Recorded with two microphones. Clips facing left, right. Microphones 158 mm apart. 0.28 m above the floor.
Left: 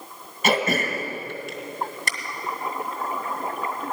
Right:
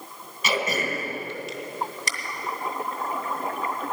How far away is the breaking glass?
I don't hear breaking glass.